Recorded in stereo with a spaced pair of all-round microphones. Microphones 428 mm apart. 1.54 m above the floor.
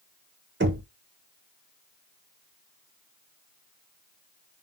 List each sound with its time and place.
0.6 s knocking: 25° right (ahead or behind), 0.7 m